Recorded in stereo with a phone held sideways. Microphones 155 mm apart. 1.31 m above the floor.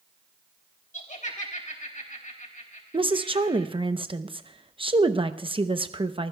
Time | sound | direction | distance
0.9 | laughter | 55° left (ahead or behind) | 3.5 m
2.9 | a woman speaking | 35° right (ahead or behind) | 0.8 m